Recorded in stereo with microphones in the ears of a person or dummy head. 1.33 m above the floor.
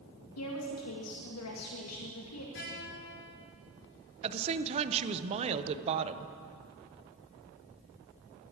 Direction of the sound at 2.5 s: 60° left (ahead or behind).